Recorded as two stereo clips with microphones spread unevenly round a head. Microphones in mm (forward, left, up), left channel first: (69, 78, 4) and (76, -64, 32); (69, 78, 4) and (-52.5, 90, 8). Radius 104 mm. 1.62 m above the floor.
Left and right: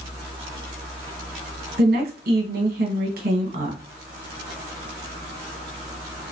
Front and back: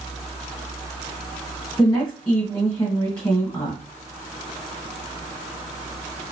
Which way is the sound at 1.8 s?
85° right.